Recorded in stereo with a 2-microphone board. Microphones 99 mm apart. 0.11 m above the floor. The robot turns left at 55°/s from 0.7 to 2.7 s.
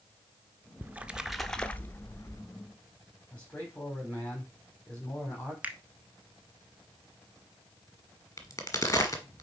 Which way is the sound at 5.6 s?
15° right (ahead or behind).